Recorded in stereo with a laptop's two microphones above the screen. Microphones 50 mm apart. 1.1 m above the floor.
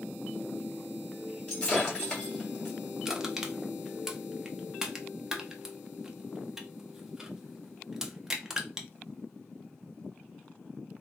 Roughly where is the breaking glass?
Centre.